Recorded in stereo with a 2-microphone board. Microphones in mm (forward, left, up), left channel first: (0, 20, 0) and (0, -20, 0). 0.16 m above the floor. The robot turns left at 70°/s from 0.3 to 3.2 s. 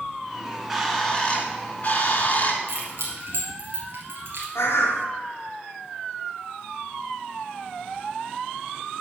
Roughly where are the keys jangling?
Right.